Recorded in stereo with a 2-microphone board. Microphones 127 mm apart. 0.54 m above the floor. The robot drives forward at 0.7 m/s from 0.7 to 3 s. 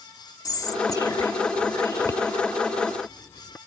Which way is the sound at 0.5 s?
30° left (ahead or behind).